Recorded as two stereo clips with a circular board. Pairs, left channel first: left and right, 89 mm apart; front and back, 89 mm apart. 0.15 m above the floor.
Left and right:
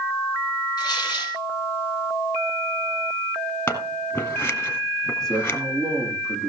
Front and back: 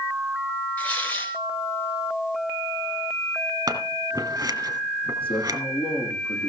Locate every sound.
0.8 s tearing paper: 70° left, 2.5 m
3.7 s scissors: 140° left, 2.5 m
5.2 s a man speaking: 5° left, 6.5 m